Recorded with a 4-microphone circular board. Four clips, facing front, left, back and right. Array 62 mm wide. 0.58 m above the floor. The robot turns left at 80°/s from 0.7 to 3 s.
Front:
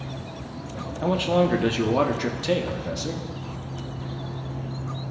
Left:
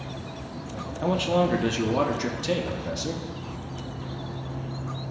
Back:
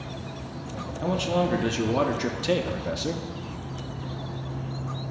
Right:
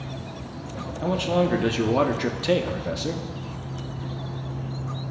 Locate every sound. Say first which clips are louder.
1.0 s a man speaking: even, front 4 dB; 25° left, 0.6 m; by 3.2 s 130° right, 0.6 m